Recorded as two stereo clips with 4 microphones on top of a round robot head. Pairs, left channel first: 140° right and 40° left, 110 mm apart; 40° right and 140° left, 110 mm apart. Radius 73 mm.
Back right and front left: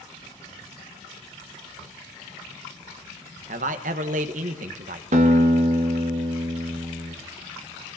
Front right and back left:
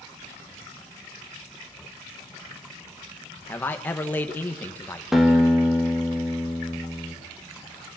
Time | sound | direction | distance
3.5 | a man speaking | 35° left | 1.5 m
5.1 | a guitar | 55° left | 2.5 m